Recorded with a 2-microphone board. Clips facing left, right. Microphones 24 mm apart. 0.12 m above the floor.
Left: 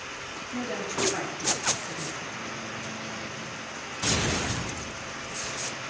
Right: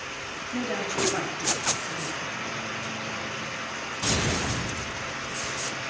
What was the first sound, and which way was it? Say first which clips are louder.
A woman speaking: right 3 dB; 25° right (ahead or behind).